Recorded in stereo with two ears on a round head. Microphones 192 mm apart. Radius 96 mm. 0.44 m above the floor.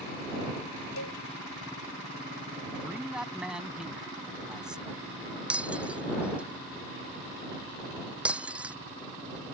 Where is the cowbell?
75° left (ahead or behind).